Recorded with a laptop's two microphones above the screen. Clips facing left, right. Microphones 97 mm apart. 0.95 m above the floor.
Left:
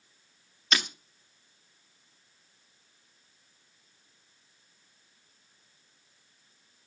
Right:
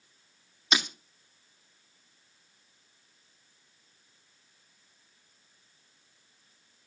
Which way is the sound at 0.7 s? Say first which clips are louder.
Right 1 dB; 15° right (ahead or behind).